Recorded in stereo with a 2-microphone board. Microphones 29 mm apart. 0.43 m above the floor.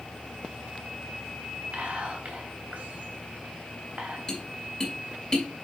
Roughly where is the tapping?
Left.